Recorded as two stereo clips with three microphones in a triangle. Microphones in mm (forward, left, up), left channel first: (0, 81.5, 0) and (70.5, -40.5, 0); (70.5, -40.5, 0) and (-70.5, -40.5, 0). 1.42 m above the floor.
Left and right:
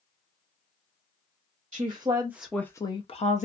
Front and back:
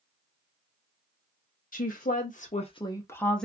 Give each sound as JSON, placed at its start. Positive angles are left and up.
{"t": 1.7, "sound": "a woman speaking", "azimuth_deg": -10, "distance_m": 0.7}